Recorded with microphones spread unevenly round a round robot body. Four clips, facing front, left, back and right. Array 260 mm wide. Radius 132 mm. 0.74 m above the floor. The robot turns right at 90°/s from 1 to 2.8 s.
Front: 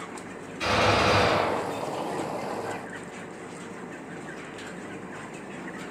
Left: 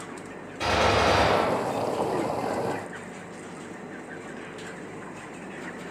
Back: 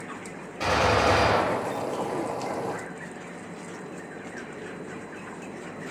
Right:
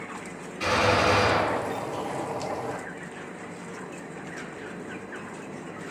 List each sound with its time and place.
0.6 s a gunshot: 135° left, 1.2 m; by 2.1 s 120° right, 1.2 m